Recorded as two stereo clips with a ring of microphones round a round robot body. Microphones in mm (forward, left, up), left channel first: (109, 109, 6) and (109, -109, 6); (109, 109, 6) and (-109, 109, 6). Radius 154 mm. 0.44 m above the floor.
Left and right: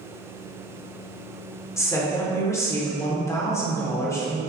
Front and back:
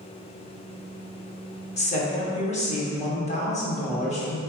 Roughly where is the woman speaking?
Ahead left.